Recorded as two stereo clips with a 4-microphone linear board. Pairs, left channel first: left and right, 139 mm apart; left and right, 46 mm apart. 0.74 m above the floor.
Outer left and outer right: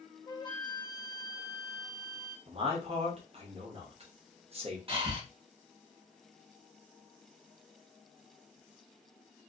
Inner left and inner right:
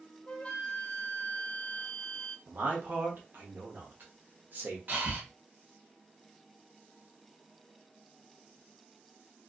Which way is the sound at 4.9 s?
40° right (ahead or behind).